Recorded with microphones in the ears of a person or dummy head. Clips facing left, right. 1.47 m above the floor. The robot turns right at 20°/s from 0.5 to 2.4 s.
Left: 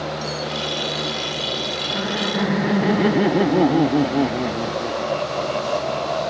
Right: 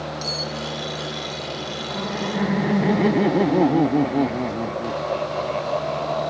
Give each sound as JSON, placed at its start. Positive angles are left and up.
{"t": 0.2, "sound": "cutlery clinking", "side_deg": -25}
{"t": 1.9, "sound": "laughter", "side_deg": 15}